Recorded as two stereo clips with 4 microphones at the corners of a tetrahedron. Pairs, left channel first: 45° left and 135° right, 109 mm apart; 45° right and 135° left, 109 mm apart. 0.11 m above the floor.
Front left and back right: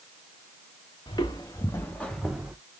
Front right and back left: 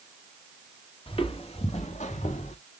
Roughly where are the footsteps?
Ahead.